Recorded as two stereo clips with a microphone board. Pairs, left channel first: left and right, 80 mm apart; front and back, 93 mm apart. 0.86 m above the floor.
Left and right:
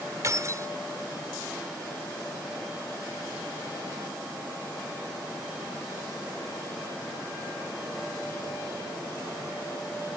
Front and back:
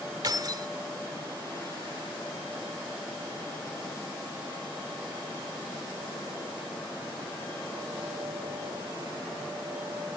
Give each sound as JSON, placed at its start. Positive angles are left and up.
{"t": 0.2, "sound": "keys jangling", "azimuth_deg": -140}